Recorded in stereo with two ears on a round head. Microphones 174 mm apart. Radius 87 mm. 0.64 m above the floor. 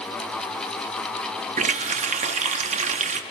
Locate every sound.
1.6 s a running tap: 35° right (ahead or behind), 0.6 m